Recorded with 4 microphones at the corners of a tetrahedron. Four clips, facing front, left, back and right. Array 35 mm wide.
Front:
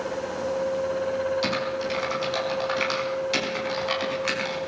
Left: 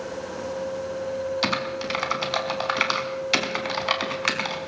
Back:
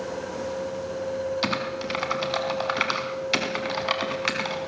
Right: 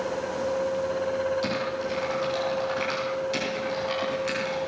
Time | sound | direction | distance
1.4 | typing on a keyboard | 120° left | 4.5 m